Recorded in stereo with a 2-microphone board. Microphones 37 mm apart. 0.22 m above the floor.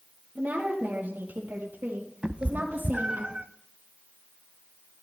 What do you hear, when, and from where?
0.3 s a woman speaking: 55° right (ahead or behind), 4.5 m; by 3.2 s 75° right (ahead or behind), 6 m
2.2 s a cat meowing: 30° right (ahead or behind), 0.5 m